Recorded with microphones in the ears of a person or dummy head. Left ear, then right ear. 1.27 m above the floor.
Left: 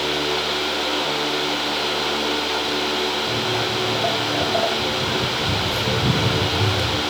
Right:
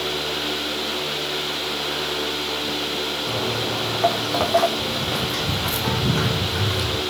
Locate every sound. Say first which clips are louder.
3.3 s footsteps: left 2 dB; 70° right (ahead or behind), 3.5 m; by 7.0 s centre (ahead or behind), 3.5 m